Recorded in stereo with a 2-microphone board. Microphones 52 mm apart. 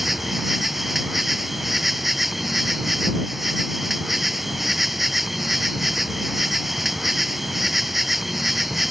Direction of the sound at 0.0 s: Centre (ahead or behind).